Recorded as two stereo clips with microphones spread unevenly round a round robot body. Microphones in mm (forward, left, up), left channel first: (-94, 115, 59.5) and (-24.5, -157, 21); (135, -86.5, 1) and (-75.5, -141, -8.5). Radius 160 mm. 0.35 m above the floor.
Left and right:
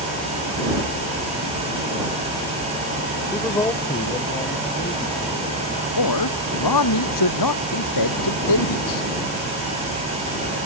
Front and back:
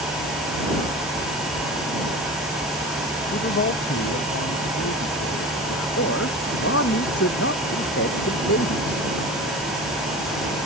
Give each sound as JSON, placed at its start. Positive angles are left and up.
{"t": 3.3, "sound": "a man speaking", "azimuth_deg": 25}
{"t": 6.0, "sound": "a man speaking", "azimuth_deg": 70}